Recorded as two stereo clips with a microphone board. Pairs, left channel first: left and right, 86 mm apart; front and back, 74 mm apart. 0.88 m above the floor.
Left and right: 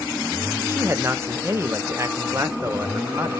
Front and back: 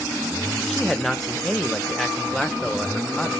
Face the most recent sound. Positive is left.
turn(degrees=-85)